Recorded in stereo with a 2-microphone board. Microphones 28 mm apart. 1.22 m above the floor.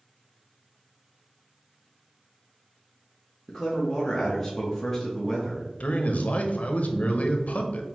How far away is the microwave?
No microwave in this recording.